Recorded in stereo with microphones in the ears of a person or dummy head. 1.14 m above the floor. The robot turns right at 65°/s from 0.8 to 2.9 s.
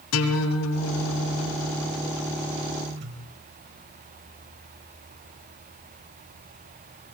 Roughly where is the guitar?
Left.